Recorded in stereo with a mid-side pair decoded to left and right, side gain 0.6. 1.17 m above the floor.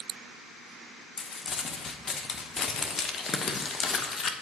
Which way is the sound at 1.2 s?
30° left.